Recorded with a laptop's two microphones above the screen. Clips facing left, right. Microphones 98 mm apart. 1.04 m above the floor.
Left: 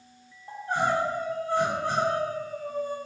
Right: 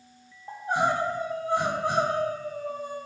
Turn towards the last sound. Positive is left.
turn(degrees=-15)  # may be behind; listen again after turning